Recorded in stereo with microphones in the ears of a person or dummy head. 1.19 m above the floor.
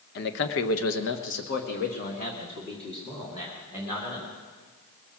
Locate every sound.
0.1 s a man speaking: 55° left (ahead or behind), 1.1 m; by 4.3 s 30° left (ahead or behind), 4 m